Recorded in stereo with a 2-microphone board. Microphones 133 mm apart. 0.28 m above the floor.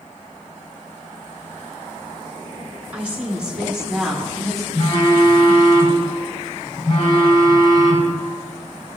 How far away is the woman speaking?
About 3 m.